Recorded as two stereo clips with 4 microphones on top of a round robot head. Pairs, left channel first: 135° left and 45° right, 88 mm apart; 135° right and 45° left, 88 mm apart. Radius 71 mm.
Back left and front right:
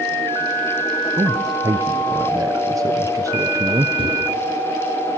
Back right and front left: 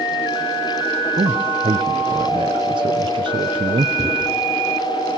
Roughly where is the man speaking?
Ahead.